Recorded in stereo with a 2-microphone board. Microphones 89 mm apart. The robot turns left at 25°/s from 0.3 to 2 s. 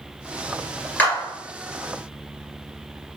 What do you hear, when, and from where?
1.0 s a clap: 20° left (ahead or behind), 2.0 m